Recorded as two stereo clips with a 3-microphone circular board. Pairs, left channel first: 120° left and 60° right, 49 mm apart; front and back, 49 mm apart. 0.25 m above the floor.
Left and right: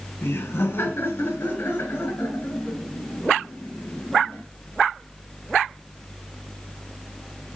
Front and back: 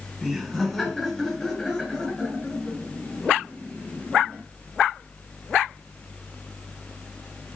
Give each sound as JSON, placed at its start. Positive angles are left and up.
{"t": 0.2, "sound": "laughter", "azimuth_deg": 90, "distance_m": 2.0}